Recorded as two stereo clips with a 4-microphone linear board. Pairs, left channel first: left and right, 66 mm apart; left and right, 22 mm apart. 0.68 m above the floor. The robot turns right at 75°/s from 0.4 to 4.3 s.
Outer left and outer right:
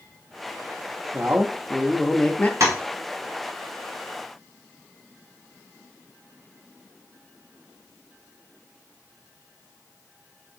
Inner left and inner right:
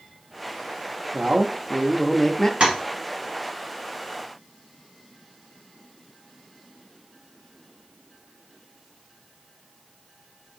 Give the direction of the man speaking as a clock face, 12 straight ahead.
2 o'clock.